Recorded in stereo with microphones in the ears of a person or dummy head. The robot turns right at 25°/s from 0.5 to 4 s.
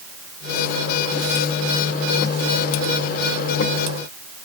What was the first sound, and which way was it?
Only background noise.